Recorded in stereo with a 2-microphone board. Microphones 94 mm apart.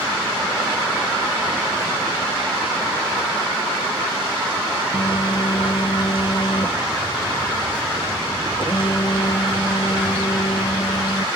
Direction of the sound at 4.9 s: 55° left (ahead or behind).